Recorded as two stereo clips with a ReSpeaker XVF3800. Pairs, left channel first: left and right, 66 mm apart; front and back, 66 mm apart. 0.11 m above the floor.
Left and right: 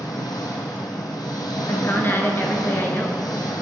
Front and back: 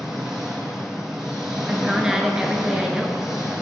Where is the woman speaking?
105° left, 1.3 m.